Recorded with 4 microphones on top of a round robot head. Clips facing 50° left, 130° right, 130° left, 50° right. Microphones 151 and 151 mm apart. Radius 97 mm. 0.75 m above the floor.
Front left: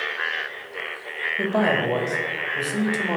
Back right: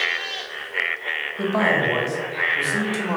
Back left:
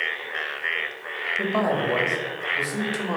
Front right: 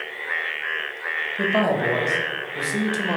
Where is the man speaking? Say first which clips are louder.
Even, front right 2 dB; 5° right, 0.7 m.